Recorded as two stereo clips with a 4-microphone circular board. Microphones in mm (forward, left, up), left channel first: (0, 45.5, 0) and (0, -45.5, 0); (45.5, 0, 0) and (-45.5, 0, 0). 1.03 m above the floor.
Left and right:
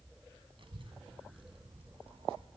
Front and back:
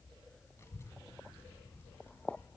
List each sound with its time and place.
0.6 s a child speaking: 60° right, 5.5 m; by 2.5 s 70° right, 6 m